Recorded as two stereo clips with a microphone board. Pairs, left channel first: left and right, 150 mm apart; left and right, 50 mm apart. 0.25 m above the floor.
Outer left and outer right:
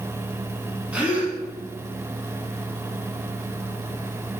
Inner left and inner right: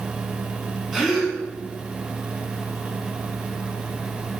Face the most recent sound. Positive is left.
turn(degrees=-10)  # may be behind; listen again after turning